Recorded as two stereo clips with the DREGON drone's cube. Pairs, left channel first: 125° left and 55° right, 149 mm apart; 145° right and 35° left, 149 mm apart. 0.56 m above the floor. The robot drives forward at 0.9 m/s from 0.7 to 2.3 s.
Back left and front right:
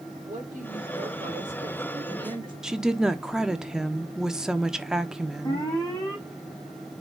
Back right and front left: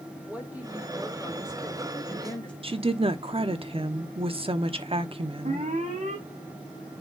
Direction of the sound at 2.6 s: 25° left.